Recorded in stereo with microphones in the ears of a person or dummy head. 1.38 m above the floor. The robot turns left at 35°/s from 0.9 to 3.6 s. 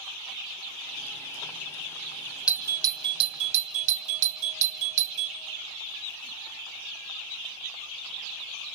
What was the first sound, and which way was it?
A doorbell, 10° right (ahead or behind).